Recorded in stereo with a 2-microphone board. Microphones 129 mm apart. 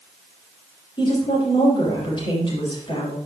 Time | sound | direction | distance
1.0 | a woman speaking | 40° left (ahead or behind) | 4.5 m